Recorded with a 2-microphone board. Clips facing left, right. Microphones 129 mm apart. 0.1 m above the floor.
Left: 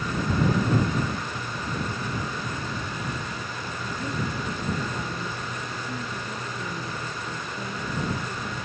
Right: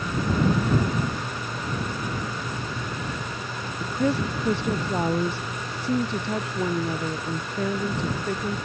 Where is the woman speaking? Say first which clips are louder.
Right 8 dB; 80° right.